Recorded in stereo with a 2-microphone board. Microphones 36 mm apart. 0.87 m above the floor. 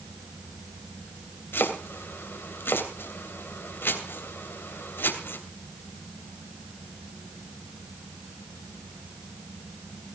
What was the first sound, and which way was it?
Chopping, 80° left.